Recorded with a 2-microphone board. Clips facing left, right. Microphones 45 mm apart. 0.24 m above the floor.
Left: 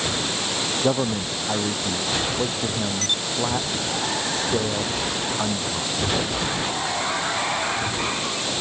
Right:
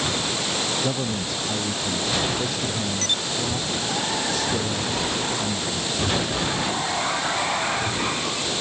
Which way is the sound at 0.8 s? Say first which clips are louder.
Left 4 dB; 35° left (ahead or behind).